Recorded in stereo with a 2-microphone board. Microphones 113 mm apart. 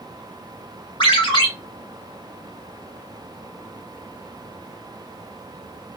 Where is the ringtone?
50° left (ahead or behind), 0.8 m.